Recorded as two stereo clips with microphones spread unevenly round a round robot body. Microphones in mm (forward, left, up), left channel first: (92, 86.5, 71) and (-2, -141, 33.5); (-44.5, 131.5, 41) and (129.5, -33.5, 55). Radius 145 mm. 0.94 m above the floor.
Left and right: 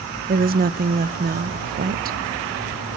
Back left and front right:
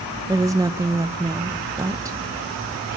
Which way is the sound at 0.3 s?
120° right.